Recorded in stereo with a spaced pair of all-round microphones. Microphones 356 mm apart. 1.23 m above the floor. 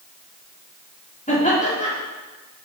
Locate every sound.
1.3 s laughter: 20° left (ahead or behind), 3.5 m